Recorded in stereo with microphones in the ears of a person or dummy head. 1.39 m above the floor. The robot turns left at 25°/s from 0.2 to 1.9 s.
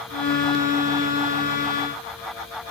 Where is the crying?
I don't hear crying.